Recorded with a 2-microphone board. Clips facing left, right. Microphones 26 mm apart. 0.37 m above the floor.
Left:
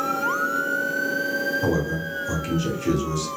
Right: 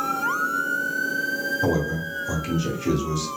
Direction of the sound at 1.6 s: 5° right (ahead or behind).